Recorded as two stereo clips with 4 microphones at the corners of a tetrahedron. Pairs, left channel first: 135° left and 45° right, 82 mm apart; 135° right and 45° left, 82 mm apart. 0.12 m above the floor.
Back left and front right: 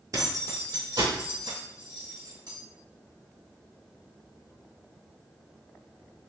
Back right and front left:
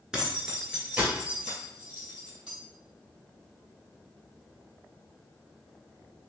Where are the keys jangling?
35° right, 1.1 m; by 2.5 s 30° right, 3 m.